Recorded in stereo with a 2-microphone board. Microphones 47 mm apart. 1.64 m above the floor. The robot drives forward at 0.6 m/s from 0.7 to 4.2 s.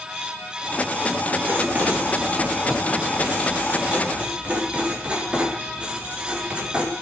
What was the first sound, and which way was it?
Writing, 40° right (ahead or behind).